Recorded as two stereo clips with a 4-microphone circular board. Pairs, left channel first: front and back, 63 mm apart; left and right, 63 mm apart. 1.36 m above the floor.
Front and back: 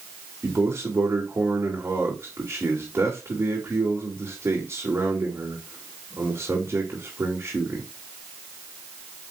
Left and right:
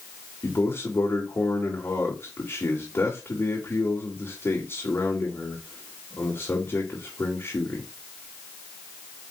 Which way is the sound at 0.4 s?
135° left.